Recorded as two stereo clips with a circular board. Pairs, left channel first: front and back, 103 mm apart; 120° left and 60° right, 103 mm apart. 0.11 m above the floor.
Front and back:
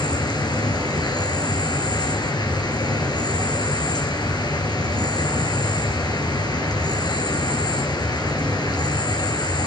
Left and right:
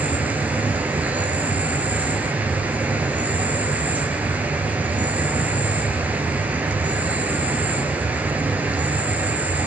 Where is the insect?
10° left, 3 m.